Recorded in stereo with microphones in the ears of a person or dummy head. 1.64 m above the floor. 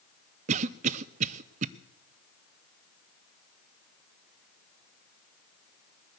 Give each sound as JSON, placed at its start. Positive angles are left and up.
{"t": 0.5, "sound": "a cough", "side_deg": -40, "distance_m": 0.7}